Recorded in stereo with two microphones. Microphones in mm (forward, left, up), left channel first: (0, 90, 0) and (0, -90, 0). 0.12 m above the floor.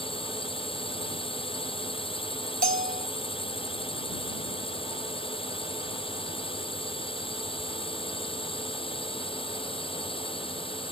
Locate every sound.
0.0 s a drone: 30° left (ahead or behind)
2.6 s a bell: 55° right (ahead or behind)